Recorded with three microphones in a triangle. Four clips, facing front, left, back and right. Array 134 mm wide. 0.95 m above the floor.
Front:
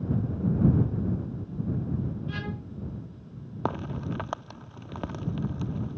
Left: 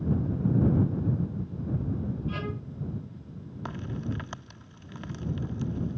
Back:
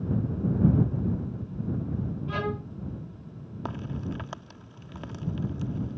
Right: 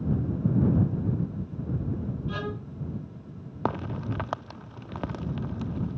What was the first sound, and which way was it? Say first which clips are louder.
A violin: right 1 dB, back 5 dB; 170° right.